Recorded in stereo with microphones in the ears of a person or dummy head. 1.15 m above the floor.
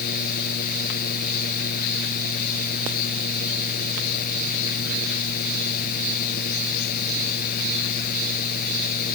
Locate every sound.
0.0 s a fan: 50° left (ahead or behind)